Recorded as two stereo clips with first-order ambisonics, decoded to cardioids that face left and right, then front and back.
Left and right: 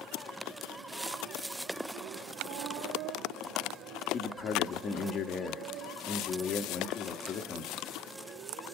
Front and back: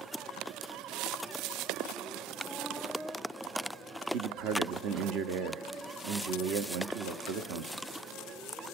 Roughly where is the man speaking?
Behind left.